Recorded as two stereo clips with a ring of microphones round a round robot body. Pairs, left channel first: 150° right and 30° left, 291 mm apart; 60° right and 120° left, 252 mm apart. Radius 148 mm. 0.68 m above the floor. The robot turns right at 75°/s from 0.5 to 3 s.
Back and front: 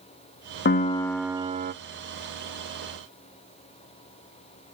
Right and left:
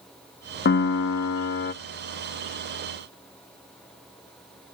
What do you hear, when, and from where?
0.7 s a piano: 100° right, 0.6 m; by 1.7 s 20° right, 0.6 m